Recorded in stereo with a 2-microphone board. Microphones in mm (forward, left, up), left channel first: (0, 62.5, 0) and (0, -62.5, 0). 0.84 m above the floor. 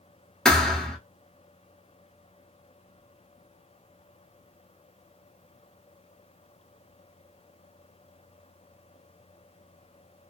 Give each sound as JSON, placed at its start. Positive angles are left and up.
{"t": 0.5, "sound": "a thud", "side_deg": 5, "distance_m": 0.8}